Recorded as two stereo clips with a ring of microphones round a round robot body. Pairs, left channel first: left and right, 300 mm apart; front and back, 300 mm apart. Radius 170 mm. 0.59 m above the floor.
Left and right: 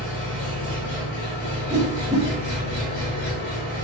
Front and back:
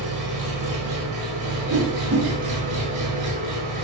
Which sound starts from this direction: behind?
A whoosh, at 1.7 s.